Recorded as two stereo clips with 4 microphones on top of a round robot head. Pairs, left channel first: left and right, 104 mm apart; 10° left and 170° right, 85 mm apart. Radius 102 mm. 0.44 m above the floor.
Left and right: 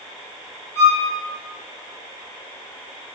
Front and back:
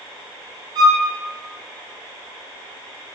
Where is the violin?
150° left, 2.5 m.